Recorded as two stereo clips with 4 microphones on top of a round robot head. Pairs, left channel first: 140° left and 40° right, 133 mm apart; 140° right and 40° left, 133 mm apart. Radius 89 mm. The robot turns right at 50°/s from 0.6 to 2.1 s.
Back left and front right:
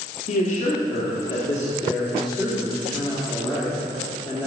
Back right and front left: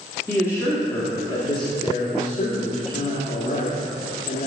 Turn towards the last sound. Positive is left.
turn(degrees=-130)